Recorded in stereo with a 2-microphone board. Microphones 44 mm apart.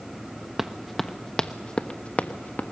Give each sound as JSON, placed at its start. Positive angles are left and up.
{"t": 0.6, "sound": "running footsteps", "side_deg": -5, "distance_m": 1.0}